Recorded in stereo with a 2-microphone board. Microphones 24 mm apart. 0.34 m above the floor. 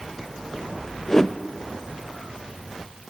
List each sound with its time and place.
1.1 s a whoosh: 20° left (ahead or behind), 0.7 m